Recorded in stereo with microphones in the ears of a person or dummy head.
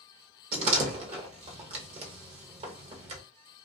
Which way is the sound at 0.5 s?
40° right (ahead or behind).